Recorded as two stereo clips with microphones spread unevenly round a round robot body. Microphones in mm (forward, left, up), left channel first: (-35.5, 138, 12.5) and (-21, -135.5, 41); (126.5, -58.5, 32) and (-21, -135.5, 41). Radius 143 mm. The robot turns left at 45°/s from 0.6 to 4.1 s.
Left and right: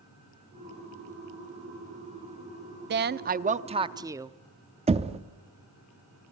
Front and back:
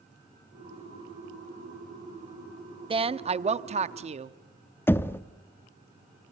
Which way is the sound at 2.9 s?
115° right.